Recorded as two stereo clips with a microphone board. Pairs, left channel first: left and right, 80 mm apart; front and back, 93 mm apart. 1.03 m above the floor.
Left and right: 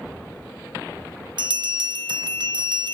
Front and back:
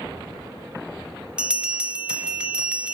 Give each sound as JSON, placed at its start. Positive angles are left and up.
{"t": 1.4, "sound": "a bell", "azimuth_deg": -100, "distance_m": 0.7}